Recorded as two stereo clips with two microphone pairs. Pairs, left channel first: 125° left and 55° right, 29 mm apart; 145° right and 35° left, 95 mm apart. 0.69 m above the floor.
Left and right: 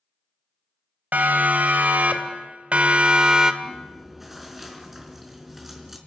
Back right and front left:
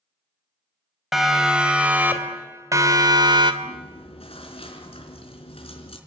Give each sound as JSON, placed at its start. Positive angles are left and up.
{"t": 1.1, "sound": "a siren", "azimuth_deg": -50, "distance_m": 3.5}
{"t": 3.6, "sound": "chewing", "azimuth_deg": -140, "distance_m": 4.0}